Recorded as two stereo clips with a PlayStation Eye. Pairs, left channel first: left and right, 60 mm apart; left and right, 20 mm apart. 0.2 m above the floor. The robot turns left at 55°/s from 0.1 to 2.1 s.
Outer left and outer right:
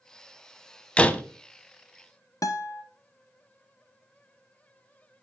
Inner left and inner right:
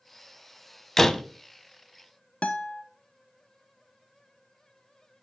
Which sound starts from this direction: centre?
A door slam, at 1.0 s.